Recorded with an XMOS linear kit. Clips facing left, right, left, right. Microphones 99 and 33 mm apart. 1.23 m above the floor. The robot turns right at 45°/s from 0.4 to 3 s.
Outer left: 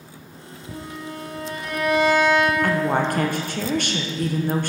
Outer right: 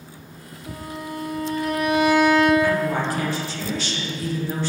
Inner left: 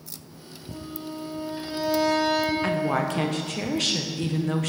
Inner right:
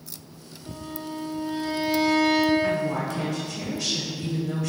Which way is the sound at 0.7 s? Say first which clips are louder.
Outer right 2 dB, inner right 1 dB; 75° right.